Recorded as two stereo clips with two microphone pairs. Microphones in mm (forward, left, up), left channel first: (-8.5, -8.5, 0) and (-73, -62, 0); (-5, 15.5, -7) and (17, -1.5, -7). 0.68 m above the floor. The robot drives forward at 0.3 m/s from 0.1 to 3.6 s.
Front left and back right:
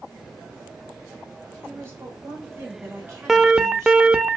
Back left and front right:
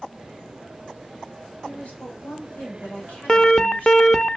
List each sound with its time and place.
1.6 s a woman speaking: 165° left, 3 m
3.3 s an alarm: 160° left, 0.5 m; by 4.4 s 165° left, 0.6 m